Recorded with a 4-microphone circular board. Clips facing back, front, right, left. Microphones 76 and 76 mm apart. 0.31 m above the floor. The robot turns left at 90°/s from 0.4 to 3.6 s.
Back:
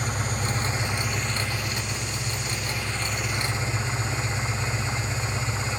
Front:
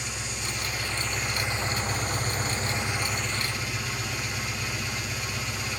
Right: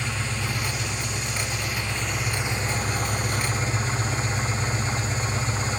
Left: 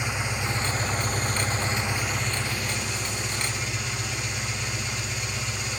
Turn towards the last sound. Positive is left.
turn(degrees=-130)